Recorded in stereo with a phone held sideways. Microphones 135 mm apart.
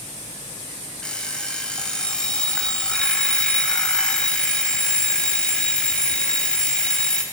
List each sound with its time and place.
1.0 s an alarm clock: 5° left (ahead or behind), 3.5 m